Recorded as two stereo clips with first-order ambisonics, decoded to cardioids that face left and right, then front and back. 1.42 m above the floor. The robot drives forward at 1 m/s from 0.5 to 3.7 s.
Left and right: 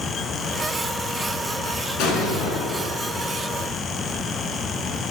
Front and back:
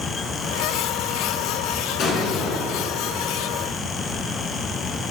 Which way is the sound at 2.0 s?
50° left.